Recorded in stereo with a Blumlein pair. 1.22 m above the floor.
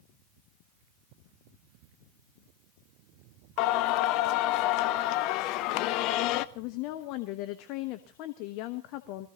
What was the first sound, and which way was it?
Singing, 40° left.